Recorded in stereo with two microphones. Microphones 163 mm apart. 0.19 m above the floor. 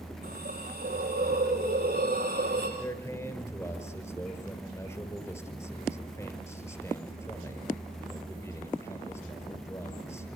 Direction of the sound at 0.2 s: 75° right (ahead or behind).